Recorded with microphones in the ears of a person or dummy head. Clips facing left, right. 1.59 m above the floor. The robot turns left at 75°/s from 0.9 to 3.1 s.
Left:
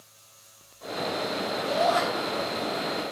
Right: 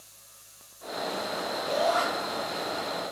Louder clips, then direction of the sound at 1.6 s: Left 2 dB; 60° left (ahead or behind).